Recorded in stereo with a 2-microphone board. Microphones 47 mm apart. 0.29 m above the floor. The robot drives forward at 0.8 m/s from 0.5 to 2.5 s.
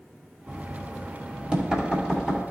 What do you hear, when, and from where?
0.5 s knocking: 25° right (ahead or behind), 0.9 m; by 2.4 s 10° right (ahead or behind), 1.8 m